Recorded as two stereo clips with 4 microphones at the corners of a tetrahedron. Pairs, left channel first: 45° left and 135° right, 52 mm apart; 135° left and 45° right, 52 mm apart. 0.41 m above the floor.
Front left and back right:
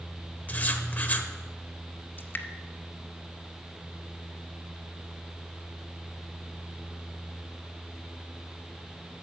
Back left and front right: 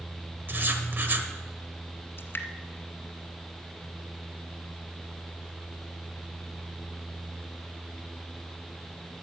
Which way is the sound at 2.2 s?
95° left.